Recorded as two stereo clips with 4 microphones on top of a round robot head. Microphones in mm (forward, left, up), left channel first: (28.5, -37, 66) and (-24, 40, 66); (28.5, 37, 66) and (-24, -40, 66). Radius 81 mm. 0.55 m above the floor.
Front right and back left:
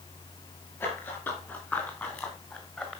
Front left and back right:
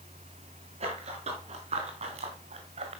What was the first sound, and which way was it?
Running footsteps, 125° right.